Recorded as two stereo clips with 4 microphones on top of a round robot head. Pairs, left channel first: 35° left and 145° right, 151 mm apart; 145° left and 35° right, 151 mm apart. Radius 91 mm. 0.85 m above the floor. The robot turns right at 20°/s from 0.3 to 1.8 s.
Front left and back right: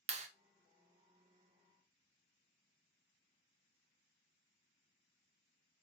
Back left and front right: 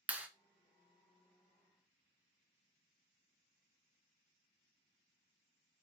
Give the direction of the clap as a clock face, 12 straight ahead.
4 o'clock.